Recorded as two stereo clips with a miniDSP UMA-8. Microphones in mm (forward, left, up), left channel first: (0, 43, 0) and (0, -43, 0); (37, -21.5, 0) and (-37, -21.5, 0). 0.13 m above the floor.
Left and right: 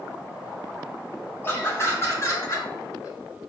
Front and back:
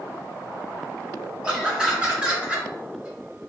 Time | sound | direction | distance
1.4 | laughter | 115° left | 1.9 m